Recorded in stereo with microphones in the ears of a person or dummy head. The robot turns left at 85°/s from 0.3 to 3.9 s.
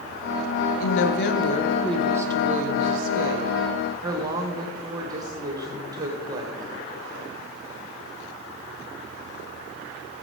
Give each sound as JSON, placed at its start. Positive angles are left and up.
{"t": 0.8, "sound": "a woman speaking", "azimuth_deg": 100, "distance_m": 1.3}